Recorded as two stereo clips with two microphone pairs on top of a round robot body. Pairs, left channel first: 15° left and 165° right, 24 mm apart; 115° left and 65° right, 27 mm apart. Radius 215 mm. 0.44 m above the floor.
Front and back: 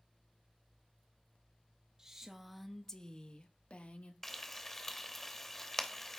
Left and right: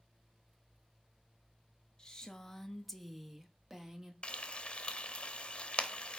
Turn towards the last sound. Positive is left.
turn(degrees=90)